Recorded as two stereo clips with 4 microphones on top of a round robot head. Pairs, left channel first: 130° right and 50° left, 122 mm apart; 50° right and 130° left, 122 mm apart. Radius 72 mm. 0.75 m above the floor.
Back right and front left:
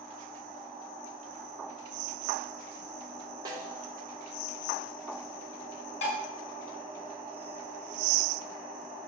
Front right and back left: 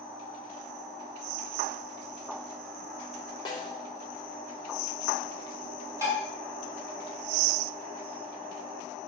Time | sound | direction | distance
3.5 | a snare drum | straight ahead | 3 m
6.0 | dishes clattering | 165° right | 4.5 m